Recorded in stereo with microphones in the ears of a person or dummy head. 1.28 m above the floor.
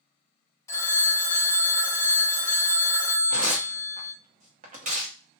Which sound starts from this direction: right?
Tearing paper, at 3.3 s.